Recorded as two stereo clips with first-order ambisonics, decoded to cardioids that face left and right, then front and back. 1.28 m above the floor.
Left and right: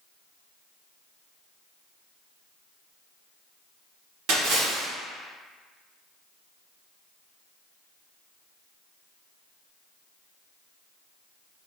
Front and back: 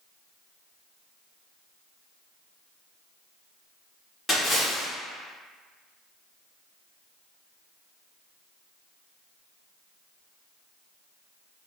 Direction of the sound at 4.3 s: 80° right.